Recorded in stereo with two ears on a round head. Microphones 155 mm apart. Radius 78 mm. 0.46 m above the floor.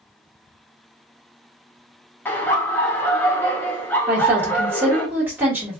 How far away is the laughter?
About 0.8 m.